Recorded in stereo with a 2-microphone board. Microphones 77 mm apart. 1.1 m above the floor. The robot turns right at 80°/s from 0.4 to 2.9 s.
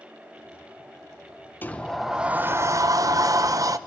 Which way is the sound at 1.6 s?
150° left.